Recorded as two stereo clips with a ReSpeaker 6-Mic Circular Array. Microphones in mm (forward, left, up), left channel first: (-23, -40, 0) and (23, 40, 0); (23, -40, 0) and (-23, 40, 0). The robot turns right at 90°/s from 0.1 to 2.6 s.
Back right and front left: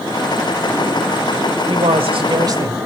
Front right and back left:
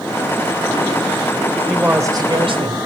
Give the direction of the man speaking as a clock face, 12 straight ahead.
11 o'clock.